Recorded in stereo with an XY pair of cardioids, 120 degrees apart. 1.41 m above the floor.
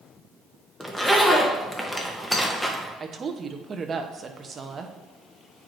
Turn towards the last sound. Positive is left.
turn(degrees=-35)